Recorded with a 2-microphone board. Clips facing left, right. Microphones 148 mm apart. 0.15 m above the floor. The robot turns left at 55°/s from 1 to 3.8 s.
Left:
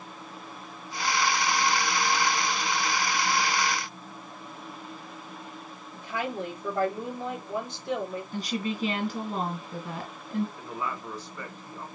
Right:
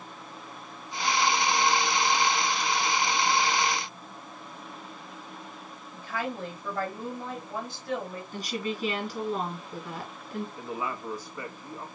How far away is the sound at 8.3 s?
About 1.4 m.